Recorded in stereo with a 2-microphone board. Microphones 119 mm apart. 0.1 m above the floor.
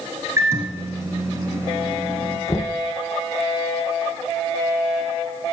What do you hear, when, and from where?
0.4 s a microwave: 25° right (ahead or behind), 1.3 m
2.5 s knocking: 25° left (ahead or behind), 0.9 m